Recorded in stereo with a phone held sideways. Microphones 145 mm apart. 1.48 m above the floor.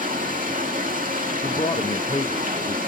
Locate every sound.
0.0 s running water: 70° right (ahead or behind), 1.9 m
1.4 s a man speaking: 40° left (ahead or behind), 0.8 m